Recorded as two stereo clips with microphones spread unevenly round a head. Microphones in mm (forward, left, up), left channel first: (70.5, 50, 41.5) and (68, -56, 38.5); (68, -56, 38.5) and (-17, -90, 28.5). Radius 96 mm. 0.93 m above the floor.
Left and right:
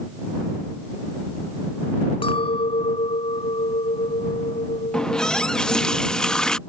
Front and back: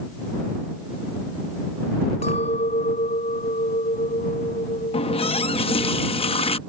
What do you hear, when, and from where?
2.2 s a clink: 55° left
4.9 s a running tap: 5° left